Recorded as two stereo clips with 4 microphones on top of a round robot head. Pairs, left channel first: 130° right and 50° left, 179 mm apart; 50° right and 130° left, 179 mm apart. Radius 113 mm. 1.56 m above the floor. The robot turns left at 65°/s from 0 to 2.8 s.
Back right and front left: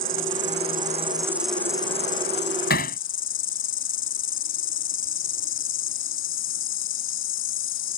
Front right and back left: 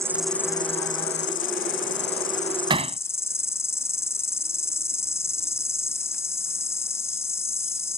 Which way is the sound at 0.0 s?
55° left.